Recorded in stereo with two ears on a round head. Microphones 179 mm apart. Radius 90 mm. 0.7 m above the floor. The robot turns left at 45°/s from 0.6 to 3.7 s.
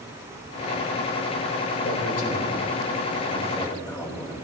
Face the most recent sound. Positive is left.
turn(degrees=10)  # may be behind; listen again after turning